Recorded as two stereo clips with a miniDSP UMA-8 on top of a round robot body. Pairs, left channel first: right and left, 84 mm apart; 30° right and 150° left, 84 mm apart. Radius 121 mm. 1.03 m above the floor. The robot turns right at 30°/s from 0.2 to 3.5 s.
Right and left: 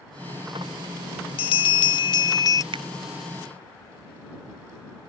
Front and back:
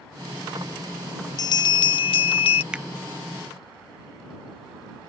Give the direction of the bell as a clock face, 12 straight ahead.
3 o'clock.